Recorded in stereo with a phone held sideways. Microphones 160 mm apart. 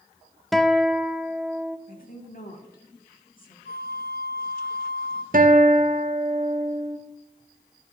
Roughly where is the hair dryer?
No hair dryer in this recording.